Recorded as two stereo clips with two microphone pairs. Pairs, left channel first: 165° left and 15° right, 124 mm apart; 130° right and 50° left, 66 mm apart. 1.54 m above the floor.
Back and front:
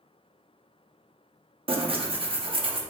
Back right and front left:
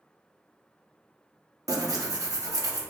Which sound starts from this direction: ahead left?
Tearing paper, at 1.7 s.